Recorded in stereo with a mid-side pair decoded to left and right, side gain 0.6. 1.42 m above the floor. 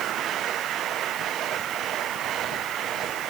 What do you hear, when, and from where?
Only background noise.